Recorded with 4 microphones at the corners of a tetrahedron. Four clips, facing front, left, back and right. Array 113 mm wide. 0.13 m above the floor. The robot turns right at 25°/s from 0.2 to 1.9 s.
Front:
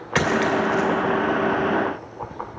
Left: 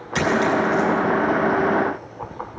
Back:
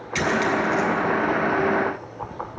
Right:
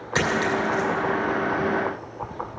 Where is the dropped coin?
15° right, 3 m; by 0.9 s straight ahead, 3 m.